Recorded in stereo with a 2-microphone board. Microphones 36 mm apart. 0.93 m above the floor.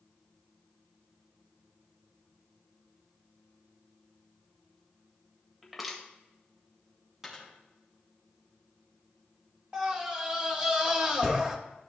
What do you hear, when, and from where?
5.6 s crushing: centre (ahead or behind), 1.5 m
7.2 s a dropped coin: 10° right (ahead or behind), 4 m
9.7 s a scream: 25° right (ahead or behind), 1.5 m